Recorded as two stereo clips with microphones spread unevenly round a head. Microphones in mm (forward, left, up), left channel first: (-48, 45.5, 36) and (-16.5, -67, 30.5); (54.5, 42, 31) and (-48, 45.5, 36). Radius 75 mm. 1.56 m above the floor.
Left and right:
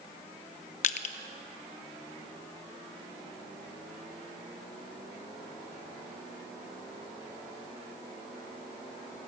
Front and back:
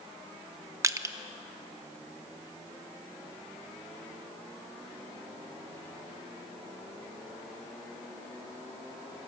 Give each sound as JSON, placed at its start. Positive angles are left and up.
{"t": 0.8, "sound": "crushing", "azimuth_deg": 120, "distance_m": 1.0}